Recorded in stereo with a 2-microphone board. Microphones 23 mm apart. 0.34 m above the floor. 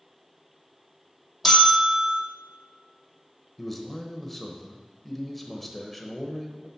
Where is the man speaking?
5° left (ahead or behind), 1.0 m.